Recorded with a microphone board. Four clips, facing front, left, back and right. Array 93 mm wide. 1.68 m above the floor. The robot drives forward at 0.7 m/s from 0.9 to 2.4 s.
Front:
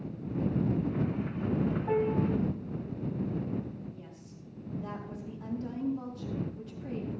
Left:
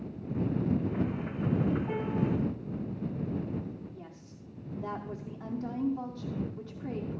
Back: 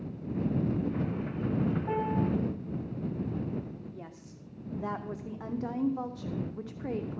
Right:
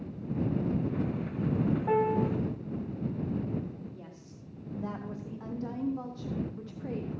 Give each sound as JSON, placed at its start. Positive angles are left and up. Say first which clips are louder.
{"t": 1.9, "sound": "a piano", "louder": "right 5 dB, front 2 dB", "azimuth_deg": -100, "distance_m": 1.9}
{"t": 3.9, "sound": "a woman speaking", "louder": "even, back 2 dB", "azimuth_deg": 180, "distance_m": 1.3}